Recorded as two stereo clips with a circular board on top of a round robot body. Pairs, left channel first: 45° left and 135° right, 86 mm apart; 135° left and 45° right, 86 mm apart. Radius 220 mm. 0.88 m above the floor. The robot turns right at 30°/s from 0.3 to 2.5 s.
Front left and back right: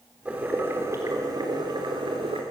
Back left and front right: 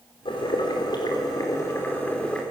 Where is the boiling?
150° left, 4 m; by 2.4 s 145° right, 4 m.